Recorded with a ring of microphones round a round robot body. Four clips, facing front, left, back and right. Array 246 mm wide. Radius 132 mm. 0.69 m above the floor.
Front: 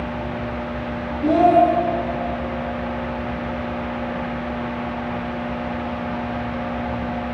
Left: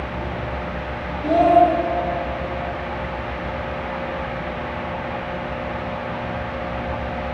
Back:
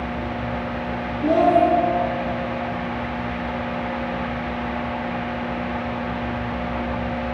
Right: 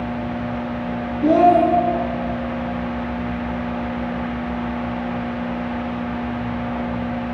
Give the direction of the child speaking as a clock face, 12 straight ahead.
3 o'clock.